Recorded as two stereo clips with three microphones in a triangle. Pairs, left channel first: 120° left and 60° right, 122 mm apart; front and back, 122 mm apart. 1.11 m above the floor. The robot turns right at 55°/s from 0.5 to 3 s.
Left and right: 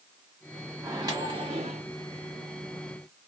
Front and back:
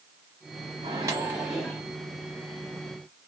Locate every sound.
0.8 s a microwave: 130° right, 1.2 m; by 1.8 s 75° right, 1.2 m